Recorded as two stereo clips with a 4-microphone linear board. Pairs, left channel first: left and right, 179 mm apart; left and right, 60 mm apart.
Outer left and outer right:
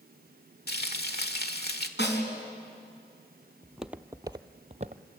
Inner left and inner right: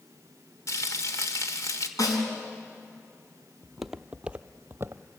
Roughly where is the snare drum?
Left.